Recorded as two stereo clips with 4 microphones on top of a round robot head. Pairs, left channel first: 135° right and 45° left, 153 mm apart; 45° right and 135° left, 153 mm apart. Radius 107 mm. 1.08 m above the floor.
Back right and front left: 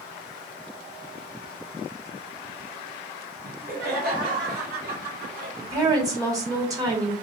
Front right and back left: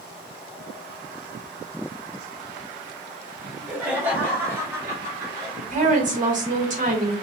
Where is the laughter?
45° left, 1.6 m; by 5.5 s 70° left, 2.5 m.